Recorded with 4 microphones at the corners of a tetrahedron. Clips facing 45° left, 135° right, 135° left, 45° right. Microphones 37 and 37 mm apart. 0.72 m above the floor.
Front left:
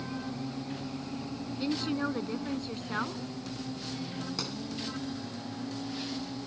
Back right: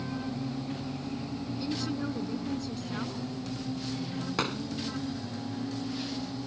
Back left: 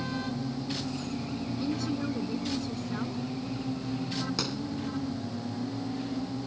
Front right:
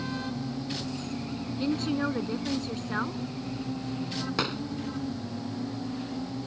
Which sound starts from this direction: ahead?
A woman speaking, at 1.6 s.